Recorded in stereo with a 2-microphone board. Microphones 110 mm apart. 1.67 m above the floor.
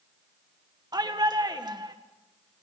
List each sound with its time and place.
0.9 s a shout: 40° right (ahead or behind), 1.8 m